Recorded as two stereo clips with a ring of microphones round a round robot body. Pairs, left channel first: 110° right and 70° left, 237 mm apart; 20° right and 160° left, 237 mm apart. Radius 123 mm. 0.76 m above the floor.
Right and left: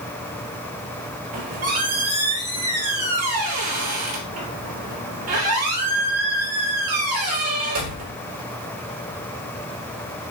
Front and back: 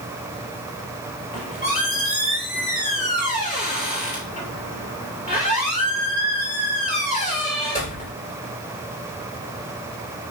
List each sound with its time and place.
1.3 s a squeak: 40° left, 3.5 m